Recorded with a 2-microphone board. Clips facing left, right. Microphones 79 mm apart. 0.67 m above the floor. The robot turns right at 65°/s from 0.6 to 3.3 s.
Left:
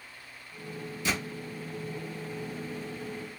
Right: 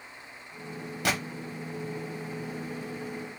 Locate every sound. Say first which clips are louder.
1.1 s a gunshot: right 3 dB; 70° right (ahead or behind), 1.1 m; by 1.2 s 60° right (ahead or behind), 1.1 m